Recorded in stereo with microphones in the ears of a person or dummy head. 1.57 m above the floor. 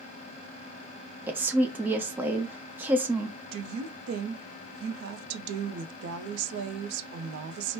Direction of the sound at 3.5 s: 70° right (ahead or behind).